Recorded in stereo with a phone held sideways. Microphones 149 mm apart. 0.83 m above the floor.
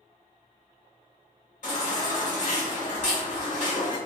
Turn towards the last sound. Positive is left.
turn(degrees=55)  # may be behind; listen again after turning